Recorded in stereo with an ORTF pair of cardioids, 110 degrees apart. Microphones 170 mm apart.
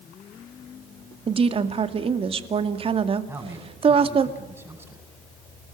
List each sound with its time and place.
1.3 s a woman speaking: 35° right, 2 m
3.3 s a man speaking: 15° right, 9 m